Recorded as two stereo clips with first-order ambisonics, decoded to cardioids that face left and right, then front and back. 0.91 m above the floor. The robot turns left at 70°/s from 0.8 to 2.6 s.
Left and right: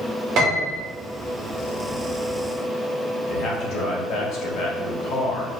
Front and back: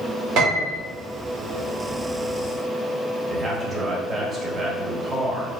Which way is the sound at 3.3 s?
110° left.